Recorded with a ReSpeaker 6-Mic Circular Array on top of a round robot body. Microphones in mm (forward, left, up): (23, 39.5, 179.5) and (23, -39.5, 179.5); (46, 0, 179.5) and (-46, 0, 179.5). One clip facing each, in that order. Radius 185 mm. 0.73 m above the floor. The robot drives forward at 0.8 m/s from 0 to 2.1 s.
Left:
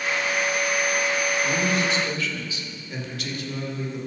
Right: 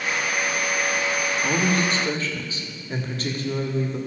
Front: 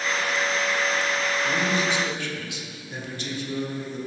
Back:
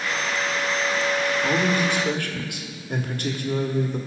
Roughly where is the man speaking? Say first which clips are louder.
Right 1 dB, back 3 dB; behind right.